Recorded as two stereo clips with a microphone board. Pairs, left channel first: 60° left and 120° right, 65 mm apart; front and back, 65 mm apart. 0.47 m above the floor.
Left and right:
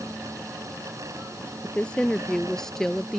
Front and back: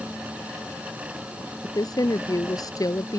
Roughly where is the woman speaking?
Ahead.